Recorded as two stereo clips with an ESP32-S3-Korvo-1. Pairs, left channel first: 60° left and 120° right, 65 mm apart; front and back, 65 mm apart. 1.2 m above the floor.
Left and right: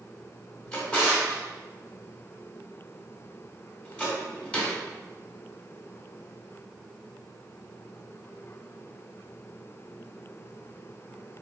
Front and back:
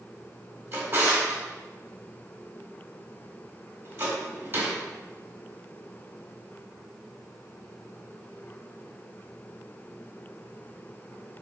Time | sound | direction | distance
0.7 | a drawer | 135° left | 1.2 m